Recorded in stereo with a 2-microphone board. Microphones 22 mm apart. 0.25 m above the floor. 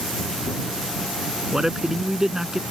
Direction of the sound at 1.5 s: 25° right (ahead or behind).